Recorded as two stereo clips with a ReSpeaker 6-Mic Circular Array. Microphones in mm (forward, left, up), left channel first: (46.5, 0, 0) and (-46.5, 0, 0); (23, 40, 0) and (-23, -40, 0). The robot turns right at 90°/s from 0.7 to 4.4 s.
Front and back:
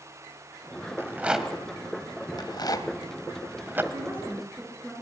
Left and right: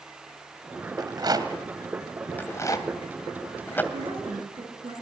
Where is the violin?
No violin in this recording.